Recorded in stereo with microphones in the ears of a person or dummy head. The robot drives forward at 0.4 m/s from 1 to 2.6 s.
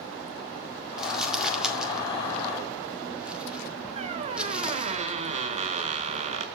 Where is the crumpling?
5° right (ahead or behind), 2 m; by 5.0 s 10° right (ahead or behind), 1.4 m.